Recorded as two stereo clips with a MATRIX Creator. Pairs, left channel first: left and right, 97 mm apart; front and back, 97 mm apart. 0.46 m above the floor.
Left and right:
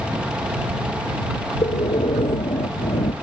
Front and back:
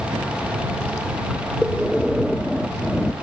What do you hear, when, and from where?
1.6 s breathing: 90° left